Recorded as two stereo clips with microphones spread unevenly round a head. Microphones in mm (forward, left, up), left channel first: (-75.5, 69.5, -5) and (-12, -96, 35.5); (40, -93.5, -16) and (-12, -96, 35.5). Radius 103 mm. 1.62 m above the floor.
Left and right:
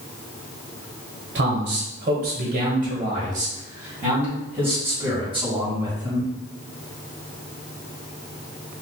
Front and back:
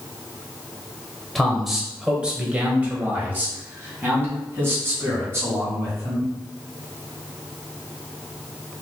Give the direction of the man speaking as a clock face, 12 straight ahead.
3 o'clock.